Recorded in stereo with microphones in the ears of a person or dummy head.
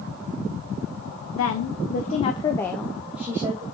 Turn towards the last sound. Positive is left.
turn(degrees=-20)  # may be behind; listen again after turning